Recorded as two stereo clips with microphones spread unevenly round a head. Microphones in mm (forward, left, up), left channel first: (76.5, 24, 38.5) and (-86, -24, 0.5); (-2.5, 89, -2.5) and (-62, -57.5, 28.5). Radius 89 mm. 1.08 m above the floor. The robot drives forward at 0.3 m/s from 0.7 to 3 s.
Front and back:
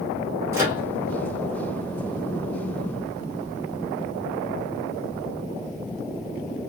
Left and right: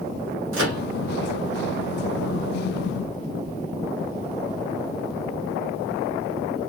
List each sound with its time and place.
0.5 s a microwave: 90° right, 3 m